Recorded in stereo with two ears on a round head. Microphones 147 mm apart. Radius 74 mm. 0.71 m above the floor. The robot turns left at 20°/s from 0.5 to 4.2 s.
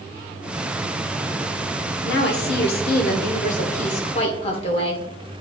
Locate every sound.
2.0 s a woman speaking: 80° left, 1.6 m; by 5.0 s 35° left, 1.6 m